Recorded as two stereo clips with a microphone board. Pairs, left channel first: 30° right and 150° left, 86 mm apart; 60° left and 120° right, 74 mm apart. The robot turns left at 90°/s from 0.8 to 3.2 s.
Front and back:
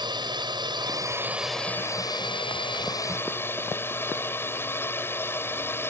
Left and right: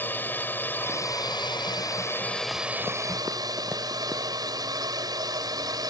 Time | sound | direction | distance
0.0 | a drone | 125° left | ?